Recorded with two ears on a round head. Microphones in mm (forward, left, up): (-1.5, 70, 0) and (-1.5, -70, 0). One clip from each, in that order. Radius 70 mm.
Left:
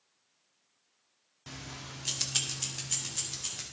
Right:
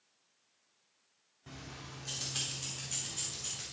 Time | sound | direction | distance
1.5 | keys jangling | 80° left | 1.0 m